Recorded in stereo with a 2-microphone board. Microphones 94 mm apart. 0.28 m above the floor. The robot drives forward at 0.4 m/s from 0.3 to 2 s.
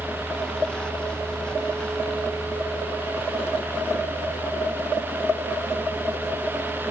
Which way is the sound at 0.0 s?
Centre (ahead or behind).